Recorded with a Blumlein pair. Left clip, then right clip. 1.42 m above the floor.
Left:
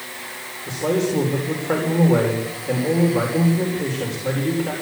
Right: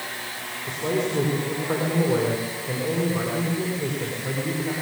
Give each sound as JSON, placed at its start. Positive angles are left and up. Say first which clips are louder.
{"t": 0.7, "sound": "a man speaking", "louder": "left 4 dB", "azimuth_deg": 70, "distance_m": 5.0}